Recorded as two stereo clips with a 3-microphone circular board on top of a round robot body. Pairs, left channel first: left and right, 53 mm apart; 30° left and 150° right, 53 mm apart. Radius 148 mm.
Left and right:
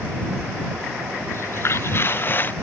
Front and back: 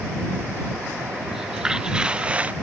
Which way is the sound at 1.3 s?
125° left.